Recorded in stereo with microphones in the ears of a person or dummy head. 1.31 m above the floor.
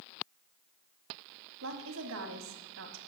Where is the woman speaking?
70° right (ahead or behind), 1.5 m.